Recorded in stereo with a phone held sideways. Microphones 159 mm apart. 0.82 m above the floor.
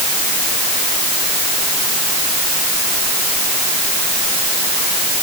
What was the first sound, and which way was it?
Only background noise.